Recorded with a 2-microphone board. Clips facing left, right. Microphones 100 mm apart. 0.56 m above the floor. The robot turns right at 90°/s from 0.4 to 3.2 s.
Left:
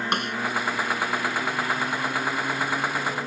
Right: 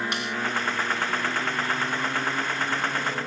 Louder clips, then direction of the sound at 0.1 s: Left 4 dB; 50° left (ahead or behind).